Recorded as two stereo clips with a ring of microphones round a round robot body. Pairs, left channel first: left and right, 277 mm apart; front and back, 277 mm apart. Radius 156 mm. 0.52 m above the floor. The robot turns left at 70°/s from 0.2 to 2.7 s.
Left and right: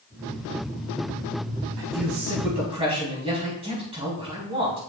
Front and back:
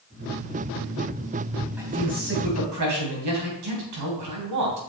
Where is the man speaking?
95° right, 3.5 m; by 4.8 s 160° right, 3.5 m.